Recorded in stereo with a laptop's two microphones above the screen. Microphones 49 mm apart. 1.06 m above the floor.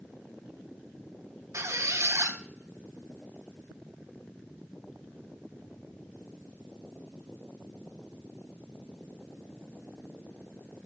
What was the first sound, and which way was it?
A squeak, 80° right.